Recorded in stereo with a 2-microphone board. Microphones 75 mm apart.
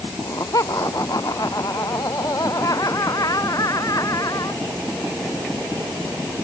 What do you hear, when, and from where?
0.2 s laughter: 55° left (ahead or behind)